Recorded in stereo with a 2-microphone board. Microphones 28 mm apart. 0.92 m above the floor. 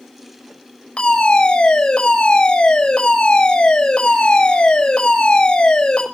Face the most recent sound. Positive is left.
turn(degrees=35)  # may be behind; listen again after turning